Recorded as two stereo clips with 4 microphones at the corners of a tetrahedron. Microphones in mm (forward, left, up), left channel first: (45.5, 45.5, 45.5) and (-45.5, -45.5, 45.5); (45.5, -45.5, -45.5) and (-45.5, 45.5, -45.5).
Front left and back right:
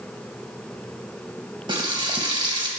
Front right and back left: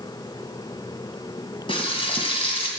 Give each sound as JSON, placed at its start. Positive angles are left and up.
{"t": 1.7, "sound": "frying", "azimuth_deg": -85, "distance_m": 2.5}